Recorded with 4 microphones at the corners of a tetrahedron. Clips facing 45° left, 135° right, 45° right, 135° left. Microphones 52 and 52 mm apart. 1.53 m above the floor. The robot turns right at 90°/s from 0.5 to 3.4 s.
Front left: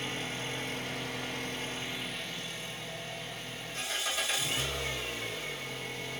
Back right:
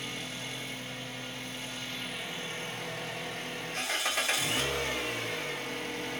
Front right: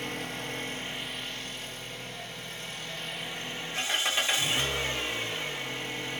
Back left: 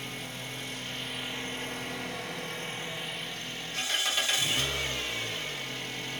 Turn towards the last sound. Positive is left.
turn(degrees=-110)